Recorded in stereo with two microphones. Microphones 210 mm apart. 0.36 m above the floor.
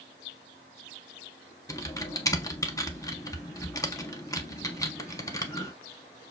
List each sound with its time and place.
1.7 s typing on a keyboard: 15° left (ahead or behind), 0.5 m